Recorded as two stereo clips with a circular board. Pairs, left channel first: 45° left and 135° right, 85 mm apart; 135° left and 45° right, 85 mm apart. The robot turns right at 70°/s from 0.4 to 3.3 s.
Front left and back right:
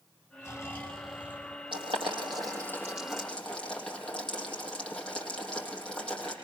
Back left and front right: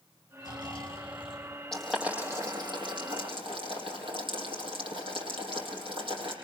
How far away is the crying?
I don't hear crying.